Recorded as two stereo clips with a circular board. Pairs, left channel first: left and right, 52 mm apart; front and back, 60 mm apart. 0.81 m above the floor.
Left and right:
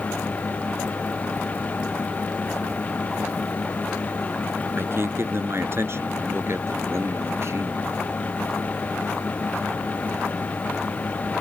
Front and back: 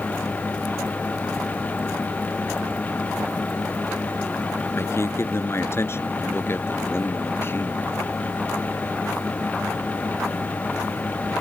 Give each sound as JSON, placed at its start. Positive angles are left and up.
{"t": 4.8, "sound": "a man speaking", "azimuth_deg": -45}